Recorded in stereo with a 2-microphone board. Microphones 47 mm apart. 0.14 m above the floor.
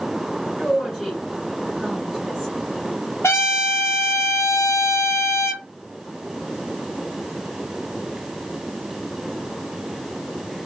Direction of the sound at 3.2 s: 70° left (ahead or behind).